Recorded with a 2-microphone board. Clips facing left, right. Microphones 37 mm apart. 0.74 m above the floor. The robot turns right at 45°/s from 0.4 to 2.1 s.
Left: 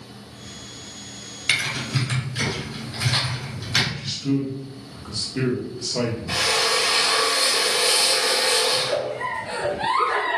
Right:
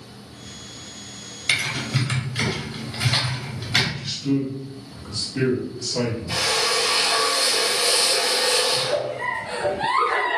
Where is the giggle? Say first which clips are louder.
Even; 15° left (ahead or behind), 2.5 m.